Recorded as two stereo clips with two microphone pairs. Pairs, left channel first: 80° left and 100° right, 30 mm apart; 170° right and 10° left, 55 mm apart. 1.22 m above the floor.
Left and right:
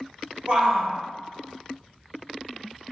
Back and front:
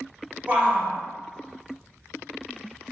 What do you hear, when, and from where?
0.5 s a shout: 55° right, 1.2 m